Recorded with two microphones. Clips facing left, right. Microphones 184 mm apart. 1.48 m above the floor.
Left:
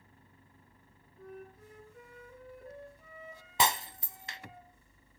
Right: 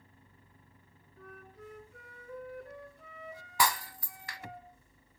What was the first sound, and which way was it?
A flute, 70° right (ahead or behind).